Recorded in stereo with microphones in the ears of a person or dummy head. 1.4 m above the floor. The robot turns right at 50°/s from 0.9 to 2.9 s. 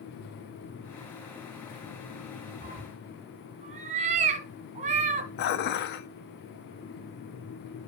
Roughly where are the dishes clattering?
Left.